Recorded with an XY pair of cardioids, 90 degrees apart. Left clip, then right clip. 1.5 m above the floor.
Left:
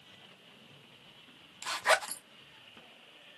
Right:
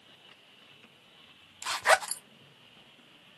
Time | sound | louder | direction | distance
1.6 | a zipper | right 3 dB | 40° right | 0.6 m